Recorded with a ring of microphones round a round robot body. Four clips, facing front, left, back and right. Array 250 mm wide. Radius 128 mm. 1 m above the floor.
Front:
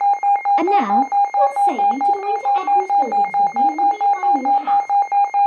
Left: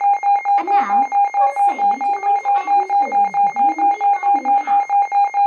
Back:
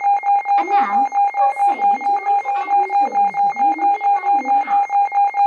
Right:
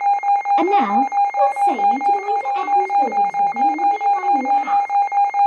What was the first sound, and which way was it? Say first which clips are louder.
A woman speaking: even, even; 50° right.